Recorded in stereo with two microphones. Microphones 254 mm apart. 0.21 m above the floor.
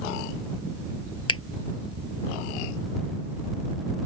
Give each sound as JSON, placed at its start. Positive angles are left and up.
{"t": 1.3, "sound": "a finger snap", "side_deg": 60}